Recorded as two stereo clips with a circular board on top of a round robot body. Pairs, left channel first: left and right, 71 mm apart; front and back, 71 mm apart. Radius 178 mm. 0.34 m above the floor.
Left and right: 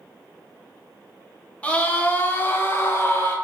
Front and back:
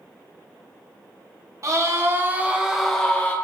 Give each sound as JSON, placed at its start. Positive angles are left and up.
{"t": 1.6, "sound": "a scream", "azimuth_deg": 155, "distance_m": 2.0}